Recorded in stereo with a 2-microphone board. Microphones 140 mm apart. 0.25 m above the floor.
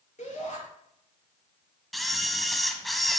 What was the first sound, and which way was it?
A shout, 60° left (ahead or behind).